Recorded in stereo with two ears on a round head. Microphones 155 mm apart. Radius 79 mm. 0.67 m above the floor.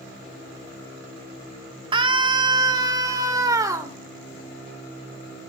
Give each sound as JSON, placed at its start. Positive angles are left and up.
{"t": 1.9, "sound": "a scream", "side_deg": -30, "distance_m": 1.3}